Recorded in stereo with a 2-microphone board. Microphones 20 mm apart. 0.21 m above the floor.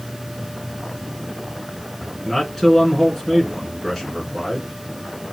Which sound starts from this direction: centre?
A man speaking, at 2.2 s.